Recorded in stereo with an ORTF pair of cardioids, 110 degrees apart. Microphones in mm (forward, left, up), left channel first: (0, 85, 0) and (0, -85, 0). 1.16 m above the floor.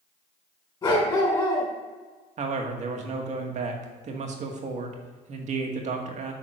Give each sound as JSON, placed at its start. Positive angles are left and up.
{"t": 0.8, "sound": "a dog barking", "azimuth_deg": 25, "distance_m": 3.5}
{"t": 2.4, "sound": "a man speaking", "azimuth_deg": -50, "distance_m": 1.9}